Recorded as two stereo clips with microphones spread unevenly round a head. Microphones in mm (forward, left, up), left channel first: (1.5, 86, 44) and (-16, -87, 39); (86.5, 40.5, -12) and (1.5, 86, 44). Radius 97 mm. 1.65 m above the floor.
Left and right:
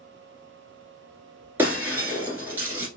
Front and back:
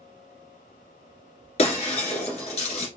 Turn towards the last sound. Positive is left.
turn(degrees=-25)